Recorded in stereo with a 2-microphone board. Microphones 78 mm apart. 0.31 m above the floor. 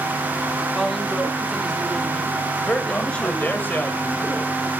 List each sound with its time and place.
0.8 s a woman speaking: 5° left (ahead or behind), 2.5 m; by 3.6 s 15° left (ahead or behind), 4 m
2.6 s a man speaking: 25° left (ahead or behind), 1.3 m